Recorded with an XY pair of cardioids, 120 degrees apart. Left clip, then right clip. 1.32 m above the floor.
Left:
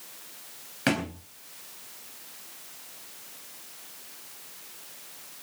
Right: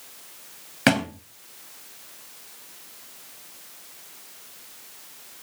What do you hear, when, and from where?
0.9 s a thud: 45° right, 3.5 m